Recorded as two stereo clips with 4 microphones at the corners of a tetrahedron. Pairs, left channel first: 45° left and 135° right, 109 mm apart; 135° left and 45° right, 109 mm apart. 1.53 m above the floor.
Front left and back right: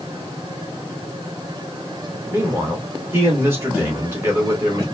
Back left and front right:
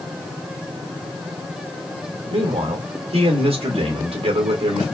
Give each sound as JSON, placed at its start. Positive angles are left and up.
{"t": 2.3, "sound": "a man speaking", "azimuth_deg": -65, "distance_m": 2.0}